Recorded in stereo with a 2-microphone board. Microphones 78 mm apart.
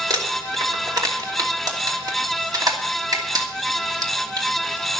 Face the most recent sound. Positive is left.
turn(degrees=-60)  # may be behind; listen again after turning